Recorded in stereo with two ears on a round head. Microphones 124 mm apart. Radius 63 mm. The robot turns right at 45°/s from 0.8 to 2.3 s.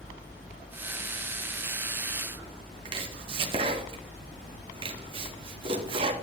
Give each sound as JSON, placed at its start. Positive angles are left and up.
{"t": 2.9, "sound": "chopping", "side_deg": -35, "distance_m": 1.4}